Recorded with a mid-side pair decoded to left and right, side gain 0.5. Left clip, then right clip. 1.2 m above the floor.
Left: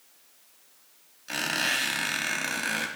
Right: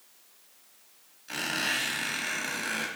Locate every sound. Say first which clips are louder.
1.3 s a squeak: left 3 dB; 45° left, 2.0 m